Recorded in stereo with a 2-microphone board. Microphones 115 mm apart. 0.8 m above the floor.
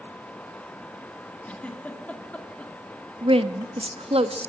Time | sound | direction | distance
1.4 | a giggle | 10° left (ahead or behind) | 2.5 m
3.2 | a woman speaking | 55° right (ahead or behind) | 1.0 m